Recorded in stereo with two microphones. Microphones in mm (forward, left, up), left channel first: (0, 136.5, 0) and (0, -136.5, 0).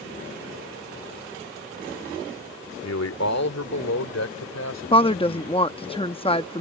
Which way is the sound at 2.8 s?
65° left (ahead or behind).